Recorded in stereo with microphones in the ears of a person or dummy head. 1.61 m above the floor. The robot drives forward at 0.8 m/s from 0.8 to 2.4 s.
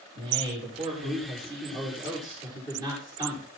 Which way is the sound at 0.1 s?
30° right (ahead or behind).